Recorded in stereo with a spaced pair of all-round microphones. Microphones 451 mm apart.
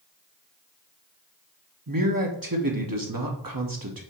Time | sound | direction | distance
1.9 | a man speaking | 45° right (ahead or behind) | 1.2 m